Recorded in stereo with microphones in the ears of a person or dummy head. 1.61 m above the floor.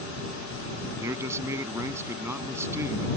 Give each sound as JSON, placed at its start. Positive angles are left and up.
{"t": 0.9, "sound": "a man speaking", "side_deg": -20}